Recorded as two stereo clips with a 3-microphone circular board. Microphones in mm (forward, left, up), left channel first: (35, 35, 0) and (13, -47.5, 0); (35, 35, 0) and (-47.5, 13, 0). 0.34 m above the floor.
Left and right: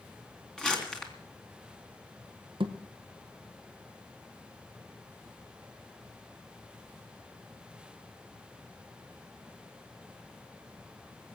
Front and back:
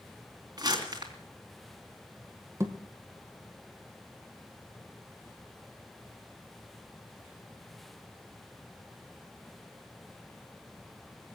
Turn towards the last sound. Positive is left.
turn(degrees=-105)